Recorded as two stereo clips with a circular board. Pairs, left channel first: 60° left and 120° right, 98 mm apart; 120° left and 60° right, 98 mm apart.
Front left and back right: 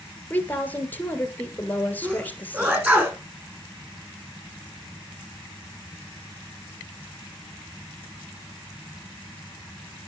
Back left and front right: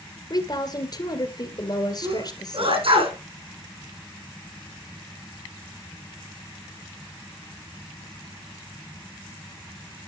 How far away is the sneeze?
About 4.5 m.